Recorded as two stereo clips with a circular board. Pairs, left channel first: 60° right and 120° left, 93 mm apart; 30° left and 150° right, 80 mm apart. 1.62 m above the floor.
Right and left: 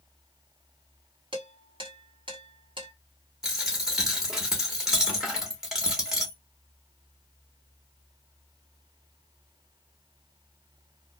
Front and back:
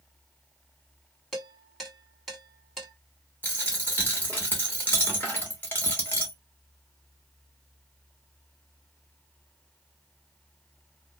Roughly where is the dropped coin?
Ahead left.